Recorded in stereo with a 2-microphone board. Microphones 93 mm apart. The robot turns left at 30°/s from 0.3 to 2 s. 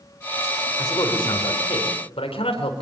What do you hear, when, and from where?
0.8 s a man speaking: 140° left, 4.5 m; by 2.8 s 105° left, 4.5 m